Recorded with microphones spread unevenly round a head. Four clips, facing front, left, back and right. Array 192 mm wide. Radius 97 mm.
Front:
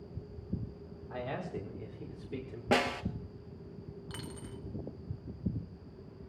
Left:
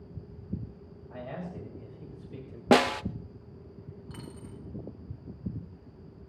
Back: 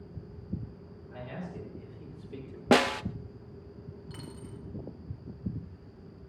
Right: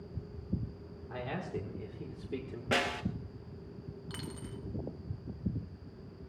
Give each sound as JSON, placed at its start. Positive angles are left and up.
{"t": 1.1, "sound": "a man speaking", "azimuth_deg": -60, "distance_m": 4.0}
{"t": 2.7, "sound": "a snare drum", "azimuth_deg": 135, "distance_m": 0.6}
{"t": 4.1, "sound": "a dropped coin", "azimuth_deg": -50, "distance_m": 4.0}